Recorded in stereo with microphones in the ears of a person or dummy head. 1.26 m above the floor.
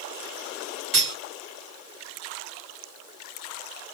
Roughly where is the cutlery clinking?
Centre.